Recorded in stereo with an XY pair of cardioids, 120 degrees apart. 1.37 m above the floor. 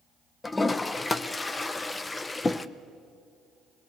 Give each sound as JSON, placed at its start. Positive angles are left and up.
{"t": 0.4, "sound": "a toilet flushing", "azimuth_deg": 20, "distance_m": 0.8}